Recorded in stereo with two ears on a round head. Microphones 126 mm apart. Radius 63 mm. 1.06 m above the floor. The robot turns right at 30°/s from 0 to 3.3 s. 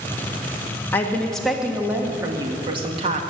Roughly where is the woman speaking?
Behind.